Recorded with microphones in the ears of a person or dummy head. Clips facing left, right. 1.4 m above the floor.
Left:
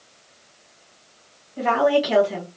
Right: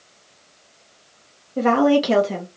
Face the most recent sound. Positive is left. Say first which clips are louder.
# right 3 dB
turn(degrees=-60)  # may be behind; listen again after turning